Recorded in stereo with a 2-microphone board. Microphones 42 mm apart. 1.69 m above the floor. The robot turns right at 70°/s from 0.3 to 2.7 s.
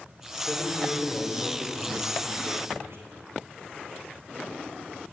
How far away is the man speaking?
About 5 m.